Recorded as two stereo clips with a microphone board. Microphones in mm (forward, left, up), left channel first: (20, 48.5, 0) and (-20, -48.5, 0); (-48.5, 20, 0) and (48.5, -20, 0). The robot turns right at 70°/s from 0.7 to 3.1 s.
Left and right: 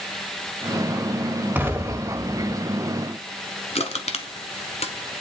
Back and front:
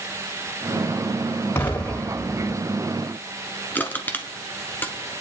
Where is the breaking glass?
I don't hear breaking glass.